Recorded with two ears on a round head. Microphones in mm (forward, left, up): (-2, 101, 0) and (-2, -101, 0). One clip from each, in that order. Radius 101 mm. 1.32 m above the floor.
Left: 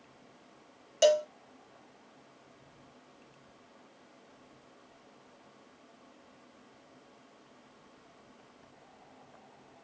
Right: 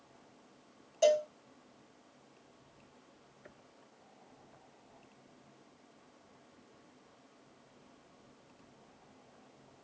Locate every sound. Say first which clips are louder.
1.0 s a cowbell: left 3 dB; 50° left (ahead or behind), 0.6 m